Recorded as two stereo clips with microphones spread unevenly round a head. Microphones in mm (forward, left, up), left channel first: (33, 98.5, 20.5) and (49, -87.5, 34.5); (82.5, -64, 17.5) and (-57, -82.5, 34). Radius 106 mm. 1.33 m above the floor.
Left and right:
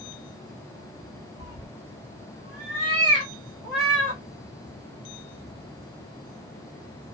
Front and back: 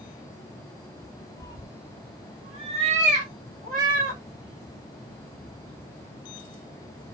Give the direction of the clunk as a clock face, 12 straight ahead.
No clunk in this recording.